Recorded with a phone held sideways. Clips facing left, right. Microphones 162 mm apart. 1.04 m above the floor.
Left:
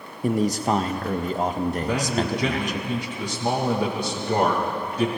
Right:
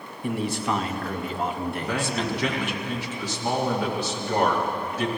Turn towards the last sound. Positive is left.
turn(degrees=30)  # may be behind; listen again after turning